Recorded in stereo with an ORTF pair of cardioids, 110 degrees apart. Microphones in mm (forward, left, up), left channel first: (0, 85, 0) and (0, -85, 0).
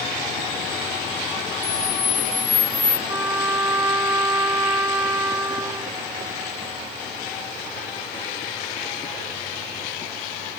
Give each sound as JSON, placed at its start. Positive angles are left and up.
{"t": 1.6, "sound": "a camera shutter", "azimuth_deg": 35, "distance_m": 1.9}
{"t": 3.1, "sound": "a trumpet", "azimuth_deg": -30, "distance_m": 1.8}